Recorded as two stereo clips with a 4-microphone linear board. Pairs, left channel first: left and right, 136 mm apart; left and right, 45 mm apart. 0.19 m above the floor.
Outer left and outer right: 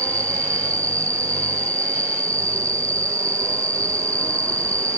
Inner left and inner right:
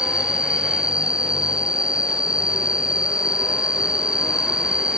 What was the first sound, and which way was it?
An insect, 20° right (ahead or behind).